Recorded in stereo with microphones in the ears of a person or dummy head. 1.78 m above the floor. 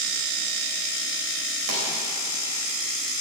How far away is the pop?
About 3 m.